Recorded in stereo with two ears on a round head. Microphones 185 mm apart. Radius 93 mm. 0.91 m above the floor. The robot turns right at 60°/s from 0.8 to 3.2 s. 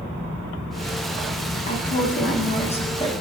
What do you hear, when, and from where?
1.6 s a woman speaking: 60° left, 0.9 m; by 3.1 s 150° left, 0.9 m